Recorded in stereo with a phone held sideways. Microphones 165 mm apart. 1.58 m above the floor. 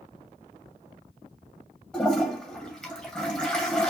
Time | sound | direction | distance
1.9 | a toilet flushing | 5° left (ahead or behind) | 2 m